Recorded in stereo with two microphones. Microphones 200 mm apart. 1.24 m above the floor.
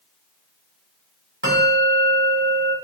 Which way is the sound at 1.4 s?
80° right.